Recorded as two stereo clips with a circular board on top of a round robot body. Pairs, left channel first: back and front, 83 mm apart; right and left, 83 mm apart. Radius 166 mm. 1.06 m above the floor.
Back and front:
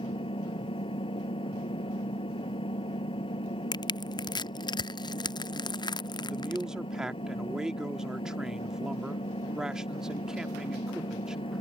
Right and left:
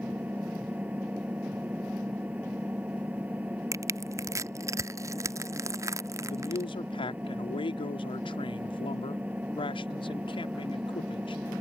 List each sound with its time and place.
0.0 s an engine running: 165° left
3.7 s crushing: 145° left
6.3 s a man speaking: 85° right